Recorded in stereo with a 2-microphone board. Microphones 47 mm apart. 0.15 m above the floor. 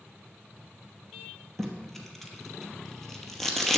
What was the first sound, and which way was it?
Tape being pulled, 5° left (ahead or behind).